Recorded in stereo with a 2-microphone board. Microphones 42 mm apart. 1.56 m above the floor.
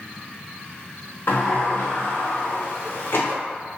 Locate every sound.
1.3 s a sliding door: 55° left (ahead or behind), 0.6 m